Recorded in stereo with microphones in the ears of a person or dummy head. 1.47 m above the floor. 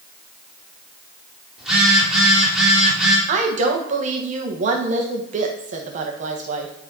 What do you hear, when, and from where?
1.6 s a phone buzzing: 5° right (ahead or behind), 3 m
3.3 s a woman speaking: 45° right (ahead or behind), 1.5 m